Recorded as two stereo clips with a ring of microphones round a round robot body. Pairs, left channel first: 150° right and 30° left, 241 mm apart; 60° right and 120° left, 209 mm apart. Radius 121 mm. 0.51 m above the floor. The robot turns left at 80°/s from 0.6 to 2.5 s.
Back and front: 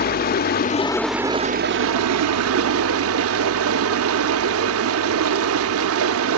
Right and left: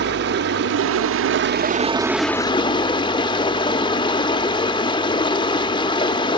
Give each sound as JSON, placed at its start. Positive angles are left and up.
{"t": 0.0, "sound": "running water", "azimuth_deg": 160, "distance_m": 0.7}